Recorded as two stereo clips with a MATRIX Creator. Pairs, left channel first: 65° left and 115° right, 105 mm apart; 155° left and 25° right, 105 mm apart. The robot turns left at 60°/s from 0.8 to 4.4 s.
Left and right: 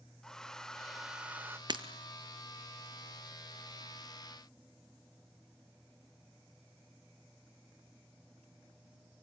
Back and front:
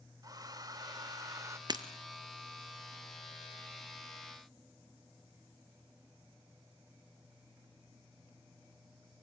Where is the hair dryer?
15° right, 1.0 m; by 1.6 s 60° right, 1.0 m.